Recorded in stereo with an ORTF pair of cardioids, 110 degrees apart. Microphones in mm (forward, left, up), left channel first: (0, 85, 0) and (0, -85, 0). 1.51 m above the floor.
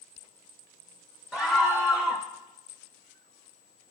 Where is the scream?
Straight ahead, 0.9 m.